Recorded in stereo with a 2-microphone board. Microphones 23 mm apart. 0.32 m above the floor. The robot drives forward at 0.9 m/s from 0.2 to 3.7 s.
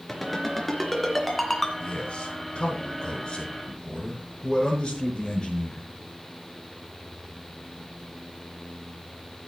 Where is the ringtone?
5° left (ahead or behind), 3.5 m; by 1.7 s 10° left (ahead or behind), 2.5 m.